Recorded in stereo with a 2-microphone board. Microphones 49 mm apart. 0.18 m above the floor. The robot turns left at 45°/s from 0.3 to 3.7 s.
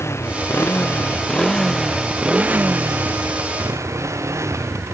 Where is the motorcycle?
70° left (ahead or behind); by 4.9 s 85° right.